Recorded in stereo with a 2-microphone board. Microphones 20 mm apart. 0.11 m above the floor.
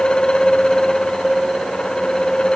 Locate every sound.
Only background noise.